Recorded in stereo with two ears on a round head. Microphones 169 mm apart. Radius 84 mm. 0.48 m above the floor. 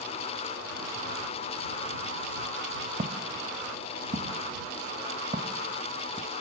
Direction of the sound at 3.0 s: 35° right (ahead or behind).